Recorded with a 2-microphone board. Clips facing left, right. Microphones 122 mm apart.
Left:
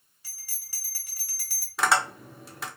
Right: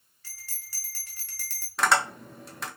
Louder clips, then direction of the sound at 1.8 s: Even; 5° left (ahead or behind).